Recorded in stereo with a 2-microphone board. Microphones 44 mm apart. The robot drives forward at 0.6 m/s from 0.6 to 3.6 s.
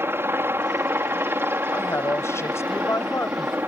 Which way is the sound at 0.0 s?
60° right (ahead or behind).